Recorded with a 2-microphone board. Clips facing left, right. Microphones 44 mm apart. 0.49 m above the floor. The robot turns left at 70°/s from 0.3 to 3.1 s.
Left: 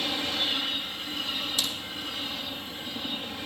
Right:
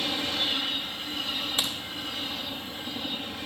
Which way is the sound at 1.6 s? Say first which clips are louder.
Right 2 dB; 35° right (ahead or behind).